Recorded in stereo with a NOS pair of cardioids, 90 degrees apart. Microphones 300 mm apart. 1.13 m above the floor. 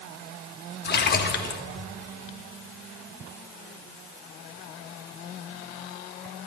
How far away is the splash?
About 1.3 m.